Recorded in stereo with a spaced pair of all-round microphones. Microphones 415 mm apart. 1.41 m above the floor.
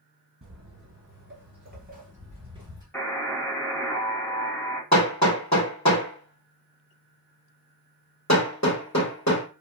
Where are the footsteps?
30° right (ahead or behind), 1.8 m; by 2.8 s 10° right (ahead or behind), 1.7 m.